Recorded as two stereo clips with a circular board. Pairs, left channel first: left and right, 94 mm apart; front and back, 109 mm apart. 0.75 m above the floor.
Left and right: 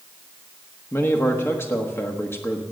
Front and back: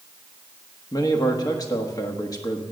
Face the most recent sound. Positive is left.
turn(degrees=40)